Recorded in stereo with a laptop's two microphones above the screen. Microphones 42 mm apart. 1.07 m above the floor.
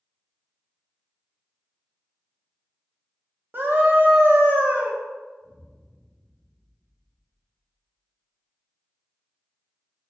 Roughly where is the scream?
Right.